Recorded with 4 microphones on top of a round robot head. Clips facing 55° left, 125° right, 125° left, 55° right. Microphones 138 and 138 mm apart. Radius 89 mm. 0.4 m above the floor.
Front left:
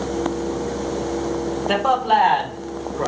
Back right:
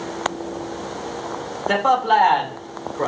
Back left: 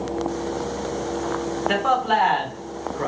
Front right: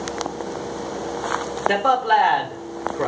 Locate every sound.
1.7 s a man speaking: 25° right, 1.0 m